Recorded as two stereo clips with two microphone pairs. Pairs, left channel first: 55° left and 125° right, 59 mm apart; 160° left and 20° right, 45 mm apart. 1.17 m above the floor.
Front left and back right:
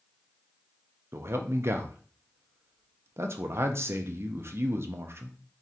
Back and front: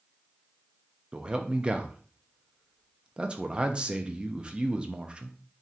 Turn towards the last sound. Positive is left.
turn(degrees=-90)